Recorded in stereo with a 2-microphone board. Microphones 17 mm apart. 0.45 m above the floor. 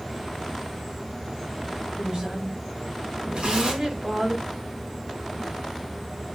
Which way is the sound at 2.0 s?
70° right (ahead or behind).